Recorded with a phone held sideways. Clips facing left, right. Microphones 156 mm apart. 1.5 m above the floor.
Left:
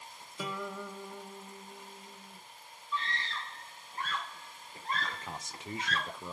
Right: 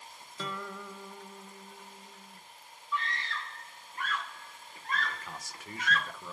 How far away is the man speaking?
About 0.6 m.